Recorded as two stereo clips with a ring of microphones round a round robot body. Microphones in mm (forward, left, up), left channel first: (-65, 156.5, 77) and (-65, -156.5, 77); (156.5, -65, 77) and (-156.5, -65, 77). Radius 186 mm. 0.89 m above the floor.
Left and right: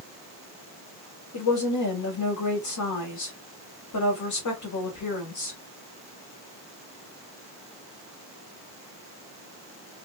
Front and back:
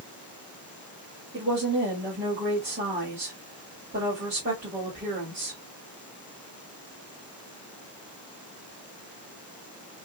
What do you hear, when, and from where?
1.3 s a woman speaking: 115° left, 2 m